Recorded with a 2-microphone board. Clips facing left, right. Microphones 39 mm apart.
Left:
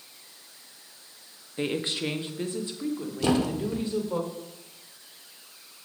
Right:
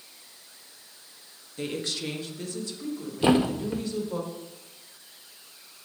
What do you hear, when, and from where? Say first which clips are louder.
1.6 s a woman speaking: left 3 dB; 30° left (ahead or behind), 0.7 m
3.2 s a thud: right 3 dB; 25° right (ahead or behind), 0.5 m